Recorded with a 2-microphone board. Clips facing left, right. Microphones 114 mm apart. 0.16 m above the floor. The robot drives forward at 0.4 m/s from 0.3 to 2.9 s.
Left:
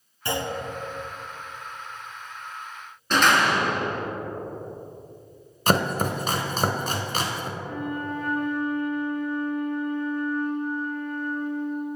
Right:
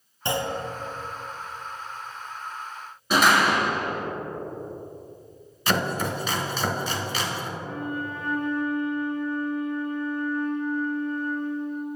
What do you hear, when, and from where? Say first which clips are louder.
0.2 s a clunk: right 1 dB; 25° right (ahead or behind), 1.5 m
3.1 s a door slam: right 1 dB; 5° right (ahead or behind), 1.1 m
5.7 s chopping: left 3 dB; 40° left (ahead or behind), 0.8 m
7.6 s a flute: even; 35° right (ahead or behind), 1.7 m